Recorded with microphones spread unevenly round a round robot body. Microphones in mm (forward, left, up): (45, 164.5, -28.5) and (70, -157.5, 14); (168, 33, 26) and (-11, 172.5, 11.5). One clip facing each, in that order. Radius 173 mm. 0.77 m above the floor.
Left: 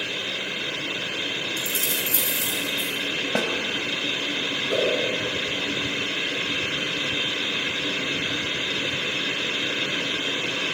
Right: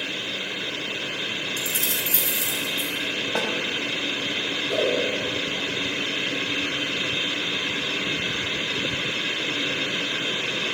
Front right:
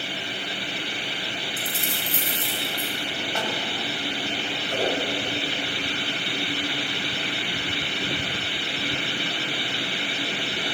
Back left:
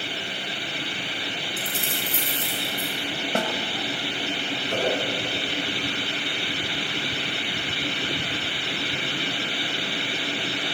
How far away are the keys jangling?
About 6.5 m.